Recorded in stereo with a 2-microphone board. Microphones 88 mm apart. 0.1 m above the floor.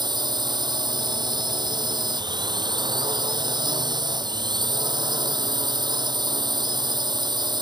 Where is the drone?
55° right (ahead or behind).